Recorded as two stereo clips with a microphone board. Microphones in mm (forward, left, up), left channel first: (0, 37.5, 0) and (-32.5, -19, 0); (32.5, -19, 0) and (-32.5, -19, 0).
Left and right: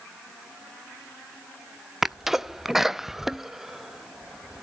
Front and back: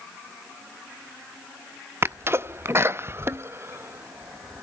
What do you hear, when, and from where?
2.0 s a sneeze: 160° left, 0.6 m